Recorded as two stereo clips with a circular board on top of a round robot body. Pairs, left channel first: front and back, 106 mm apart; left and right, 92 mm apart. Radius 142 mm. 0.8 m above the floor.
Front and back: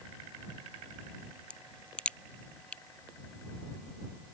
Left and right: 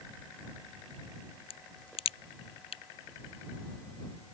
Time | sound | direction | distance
1.5 | a crack | 80° left | ?